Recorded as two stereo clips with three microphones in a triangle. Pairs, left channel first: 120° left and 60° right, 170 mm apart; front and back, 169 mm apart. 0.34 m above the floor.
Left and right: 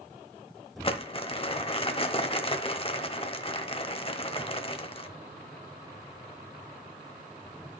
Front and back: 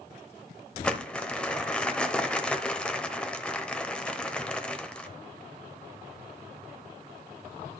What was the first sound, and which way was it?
Crumpling, 80° left.